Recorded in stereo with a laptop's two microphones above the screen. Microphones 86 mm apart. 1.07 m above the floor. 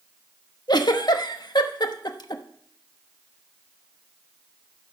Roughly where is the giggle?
Left.